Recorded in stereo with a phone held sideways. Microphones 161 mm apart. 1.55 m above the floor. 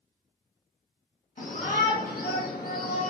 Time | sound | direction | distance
1.4 | a shout | 55° left (ahead or behind) | 1.5 m